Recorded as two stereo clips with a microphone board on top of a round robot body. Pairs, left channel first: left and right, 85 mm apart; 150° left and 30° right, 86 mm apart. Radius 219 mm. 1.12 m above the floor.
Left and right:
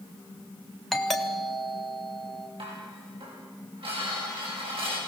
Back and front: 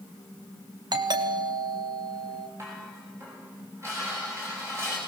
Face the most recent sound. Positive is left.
turn(degrees=-90)